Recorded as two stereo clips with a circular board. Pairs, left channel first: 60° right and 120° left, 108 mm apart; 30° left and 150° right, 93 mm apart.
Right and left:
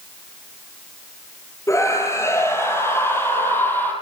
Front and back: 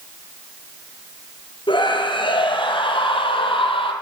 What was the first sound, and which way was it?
A scream, straight ahead.